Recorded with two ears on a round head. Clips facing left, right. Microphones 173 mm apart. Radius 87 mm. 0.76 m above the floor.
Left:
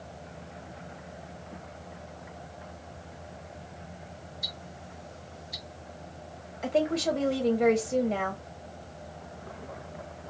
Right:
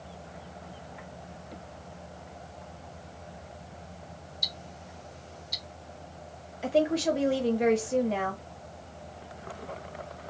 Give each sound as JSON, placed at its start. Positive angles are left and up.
{"t": 4.4, "sound": "ticking", "side_deg": -45, "distance_m": 1.0}
{"t": 6.6, "sound": "a woman speaking", "side_deg": -5, "distance_m": 0.9}